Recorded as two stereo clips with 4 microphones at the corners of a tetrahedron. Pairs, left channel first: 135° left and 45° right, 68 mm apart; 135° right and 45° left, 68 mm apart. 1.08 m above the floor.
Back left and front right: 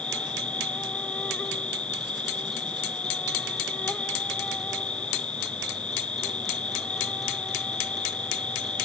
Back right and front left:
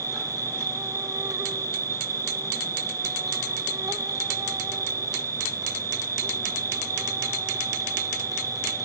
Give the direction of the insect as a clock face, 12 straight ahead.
10 o'clock.